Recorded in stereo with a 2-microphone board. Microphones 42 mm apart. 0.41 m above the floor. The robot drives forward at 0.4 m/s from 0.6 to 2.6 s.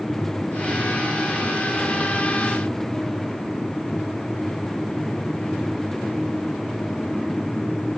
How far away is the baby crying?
No baby crying in this recording.